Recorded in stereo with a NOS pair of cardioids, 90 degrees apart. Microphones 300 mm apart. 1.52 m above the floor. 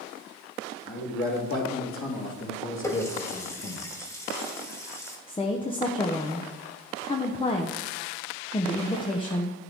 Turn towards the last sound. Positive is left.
turn(degrees=15)